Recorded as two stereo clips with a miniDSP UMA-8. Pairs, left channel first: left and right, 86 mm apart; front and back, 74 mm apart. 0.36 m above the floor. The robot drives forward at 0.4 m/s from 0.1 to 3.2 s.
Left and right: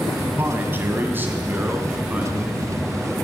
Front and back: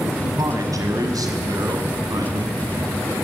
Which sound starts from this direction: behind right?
A man speaking, at 0.2 s.